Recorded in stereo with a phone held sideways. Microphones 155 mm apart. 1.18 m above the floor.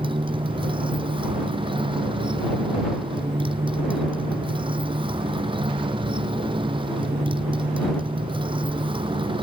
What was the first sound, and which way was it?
A motorcycle, 35° right (ahead or behind).